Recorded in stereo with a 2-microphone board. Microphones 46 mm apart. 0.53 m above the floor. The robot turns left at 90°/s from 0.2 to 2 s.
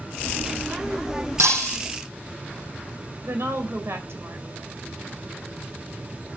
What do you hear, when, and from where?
1.4 s breaking glass: 90° right, 6 m; by 1.8 s 125° right, 6 m
3.2 s a woman speaking: 65° right (ahead or behind), 2.5 m